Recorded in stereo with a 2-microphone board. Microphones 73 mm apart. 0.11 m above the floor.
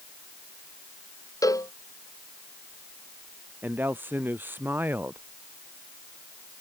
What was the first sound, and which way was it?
A cowbell, 50° left (ahead or behind).